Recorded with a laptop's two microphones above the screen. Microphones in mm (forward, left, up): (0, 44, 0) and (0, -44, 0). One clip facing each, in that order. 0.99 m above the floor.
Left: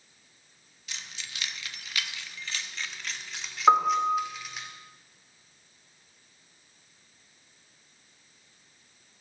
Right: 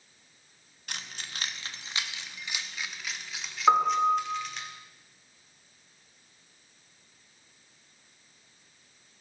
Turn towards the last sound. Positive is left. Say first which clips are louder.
# left 1 dB
turn(degrees=15)  # may be behind; listen again after turning